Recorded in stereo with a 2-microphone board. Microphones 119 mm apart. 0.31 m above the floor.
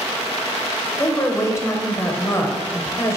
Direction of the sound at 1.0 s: 25° left (ahead or behind).